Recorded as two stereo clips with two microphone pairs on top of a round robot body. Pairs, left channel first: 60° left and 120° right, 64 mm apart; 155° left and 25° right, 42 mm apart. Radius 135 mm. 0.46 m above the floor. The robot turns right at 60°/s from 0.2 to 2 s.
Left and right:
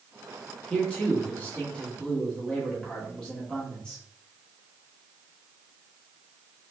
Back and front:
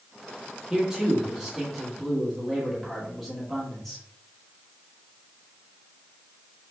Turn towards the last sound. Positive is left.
turn(degrees=105)